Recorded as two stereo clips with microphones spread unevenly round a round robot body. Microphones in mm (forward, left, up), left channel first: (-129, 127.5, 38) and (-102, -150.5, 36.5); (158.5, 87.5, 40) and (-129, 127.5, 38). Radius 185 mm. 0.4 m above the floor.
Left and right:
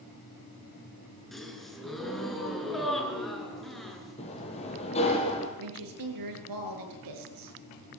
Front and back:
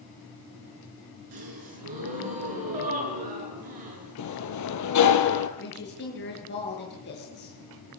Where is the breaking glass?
No breaking glass in this recording.